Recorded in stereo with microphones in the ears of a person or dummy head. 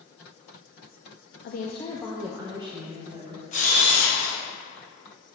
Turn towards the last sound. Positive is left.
turn(degrees=40)  # may be behind; listen again after turning